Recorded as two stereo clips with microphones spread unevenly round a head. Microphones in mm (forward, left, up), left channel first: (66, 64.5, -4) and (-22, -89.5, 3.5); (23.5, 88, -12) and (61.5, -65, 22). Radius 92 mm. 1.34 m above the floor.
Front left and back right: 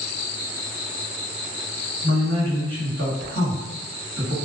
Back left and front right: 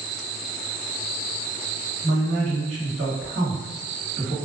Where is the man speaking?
120° right, 1.5 m.